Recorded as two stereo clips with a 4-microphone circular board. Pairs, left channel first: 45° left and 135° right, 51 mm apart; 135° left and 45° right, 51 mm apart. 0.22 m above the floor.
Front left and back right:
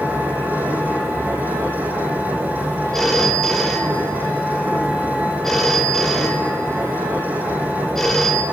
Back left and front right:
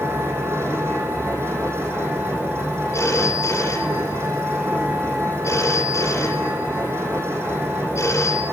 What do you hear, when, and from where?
0.0 s an engine running: 80° right, 9.5 m
2.9 s a phone ringing: 125° left, 3.5 m